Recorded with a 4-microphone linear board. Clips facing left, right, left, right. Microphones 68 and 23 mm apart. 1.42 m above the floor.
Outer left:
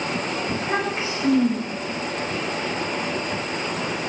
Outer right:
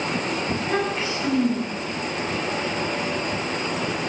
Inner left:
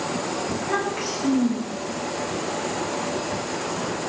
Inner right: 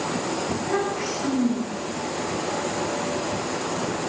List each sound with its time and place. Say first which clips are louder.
0.5 s a child speaking: even, even; 25° left (ahead or behind), 7.5 m